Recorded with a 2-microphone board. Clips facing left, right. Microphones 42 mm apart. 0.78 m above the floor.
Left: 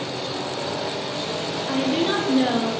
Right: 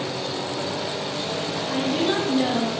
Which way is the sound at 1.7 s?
25° left (ahead or behind).